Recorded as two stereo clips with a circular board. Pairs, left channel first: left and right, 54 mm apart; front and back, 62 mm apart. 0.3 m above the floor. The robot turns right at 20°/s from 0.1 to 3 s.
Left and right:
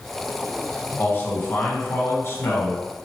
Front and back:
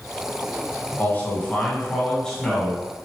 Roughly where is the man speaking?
Ahead left.